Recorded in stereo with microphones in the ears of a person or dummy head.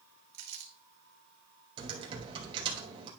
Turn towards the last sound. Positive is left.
turn(degrees=-30)  # may be behind; listen again after turning